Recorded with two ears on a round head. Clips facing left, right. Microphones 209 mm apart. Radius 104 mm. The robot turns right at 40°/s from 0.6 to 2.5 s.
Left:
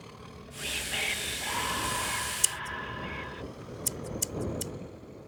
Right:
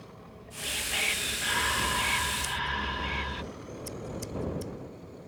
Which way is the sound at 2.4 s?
70° left (ahead or behind).